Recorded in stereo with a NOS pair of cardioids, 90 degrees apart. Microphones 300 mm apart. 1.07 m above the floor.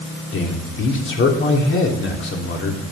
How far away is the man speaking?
About 3 m.